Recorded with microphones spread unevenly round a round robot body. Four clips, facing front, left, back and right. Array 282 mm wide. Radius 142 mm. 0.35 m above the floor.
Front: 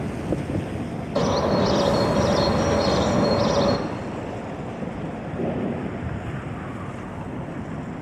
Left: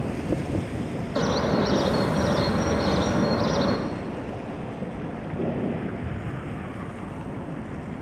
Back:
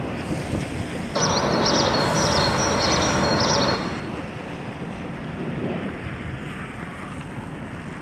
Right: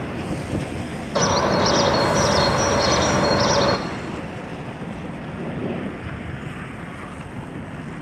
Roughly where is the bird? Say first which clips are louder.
Right 5 dB, front 1 dB; ahead right.